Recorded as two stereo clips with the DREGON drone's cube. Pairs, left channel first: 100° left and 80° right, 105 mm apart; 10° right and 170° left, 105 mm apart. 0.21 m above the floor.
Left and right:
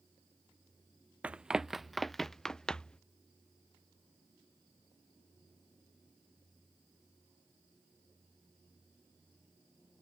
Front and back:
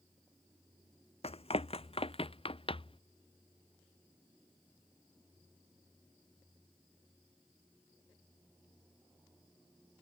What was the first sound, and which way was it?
Running footsteps, straight ahead.